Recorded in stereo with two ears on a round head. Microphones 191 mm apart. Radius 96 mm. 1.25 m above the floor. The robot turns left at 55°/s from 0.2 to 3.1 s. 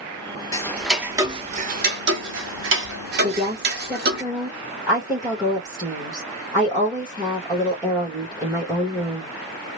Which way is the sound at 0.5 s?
20° left (ahead or behind).